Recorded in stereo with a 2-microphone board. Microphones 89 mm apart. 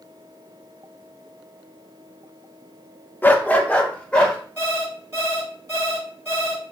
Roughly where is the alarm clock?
Right.